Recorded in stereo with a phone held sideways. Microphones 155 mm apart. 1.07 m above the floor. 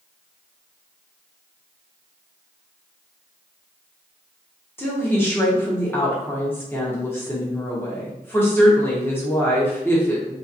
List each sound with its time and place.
4.8 s a woman speaking: 15° left (ahead or behind), 1.0 m